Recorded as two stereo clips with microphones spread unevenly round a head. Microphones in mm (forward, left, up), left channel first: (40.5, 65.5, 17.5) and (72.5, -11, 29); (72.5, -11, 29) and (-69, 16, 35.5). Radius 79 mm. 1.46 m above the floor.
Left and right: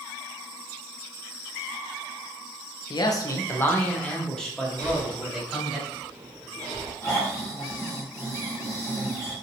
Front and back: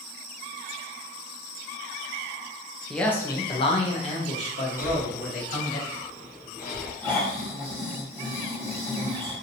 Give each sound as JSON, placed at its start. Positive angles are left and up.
{"t": 2.9, "sound": "a man speaking", "azimuth_deg": 75, "distance_m": 0.6}
{"t": 4.8, "sound": "breathing", "azimuth_deg": -80, "distance_m": 1.5}
{"t": 7.0, "sound": "snoring", "azimuth_deg": 65, "distance_m": 1.4}